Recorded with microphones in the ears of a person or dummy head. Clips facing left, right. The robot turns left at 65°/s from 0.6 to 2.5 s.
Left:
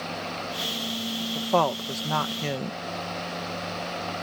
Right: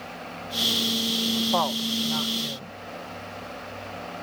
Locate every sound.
1.4 s a woman speaking: 30° left (ahead or behind); by 2.8 s 75° left (ahead or behind)